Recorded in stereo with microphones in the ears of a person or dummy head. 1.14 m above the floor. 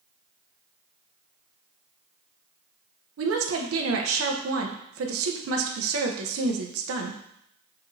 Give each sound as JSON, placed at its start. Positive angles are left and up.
{"t": 3.2, "sound": "a woman speaking", "side_deg": -60, "distance_m": 0.7}